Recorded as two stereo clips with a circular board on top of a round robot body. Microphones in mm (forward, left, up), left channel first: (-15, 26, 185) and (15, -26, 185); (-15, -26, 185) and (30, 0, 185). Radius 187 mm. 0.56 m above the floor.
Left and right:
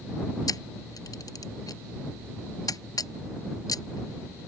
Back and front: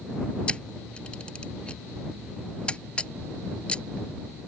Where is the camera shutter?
140° left.